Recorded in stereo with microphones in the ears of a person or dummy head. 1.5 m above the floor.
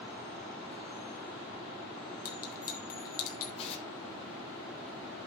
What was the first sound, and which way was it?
A clink, 45° left (ahead or behind).